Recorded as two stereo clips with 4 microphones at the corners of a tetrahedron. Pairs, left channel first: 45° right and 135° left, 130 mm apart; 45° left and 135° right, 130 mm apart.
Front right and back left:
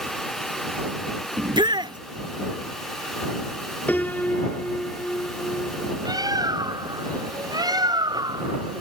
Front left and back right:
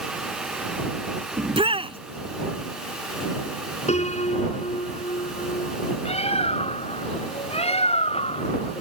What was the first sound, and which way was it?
A shout, 175° right.